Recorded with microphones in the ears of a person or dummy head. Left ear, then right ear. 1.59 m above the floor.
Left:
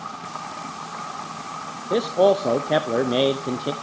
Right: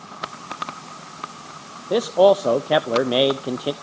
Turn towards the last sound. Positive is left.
turn(degrees=-40)  # may be behind; listen again after turning